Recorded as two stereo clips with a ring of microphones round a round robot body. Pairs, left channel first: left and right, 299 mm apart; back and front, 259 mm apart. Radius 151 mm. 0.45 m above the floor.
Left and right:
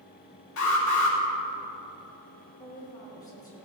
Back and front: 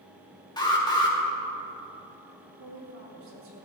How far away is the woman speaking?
About 6 m.